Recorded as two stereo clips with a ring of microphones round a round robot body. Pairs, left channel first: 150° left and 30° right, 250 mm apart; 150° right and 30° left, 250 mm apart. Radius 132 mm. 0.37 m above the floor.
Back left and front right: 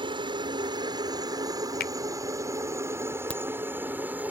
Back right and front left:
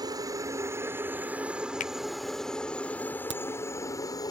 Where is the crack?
65° left.